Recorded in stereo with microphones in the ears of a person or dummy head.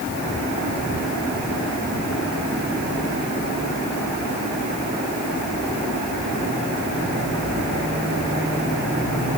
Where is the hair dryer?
No hair dryer in this recording.